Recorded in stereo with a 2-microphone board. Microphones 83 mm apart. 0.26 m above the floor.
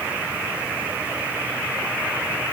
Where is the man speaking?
No man speaking in this recording.